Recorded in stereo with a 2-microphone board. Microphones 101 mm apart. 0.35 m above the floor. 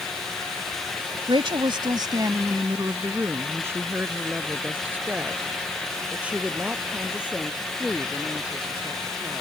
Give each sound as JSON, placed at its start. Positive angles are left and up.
{"t": 1.3, "sound": "a woman speaking", "side_deg": -60}